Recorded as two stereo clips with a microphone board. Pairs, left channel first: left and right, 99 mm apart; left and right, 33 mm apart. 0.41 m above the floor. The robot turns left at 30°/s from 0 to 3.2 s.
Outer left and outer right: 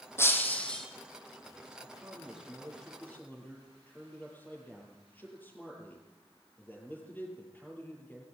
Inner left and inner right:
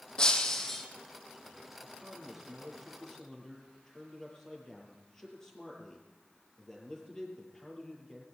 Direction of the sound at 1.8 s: 155° right.